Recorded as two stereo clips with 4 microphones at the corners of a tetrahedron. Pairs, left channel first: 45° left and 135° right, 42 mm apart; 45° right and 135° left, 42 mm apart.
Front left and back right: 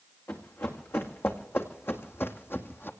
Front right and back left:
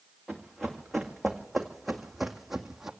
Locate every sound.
0.3 s running footsteps: 40° left, 2.5 m; by 2.9 s 55° left, 1.4 m